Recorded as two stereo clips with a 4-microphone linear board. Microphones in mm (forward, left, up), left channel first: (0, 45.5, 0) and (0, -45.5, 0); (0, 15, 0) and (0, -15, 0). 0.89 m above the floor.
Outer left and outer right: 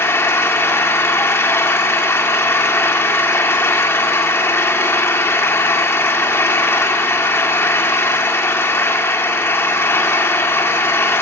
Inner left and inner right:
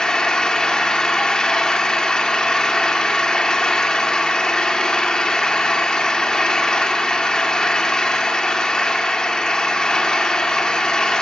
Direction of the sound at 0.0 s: 30° left (ahead or behind).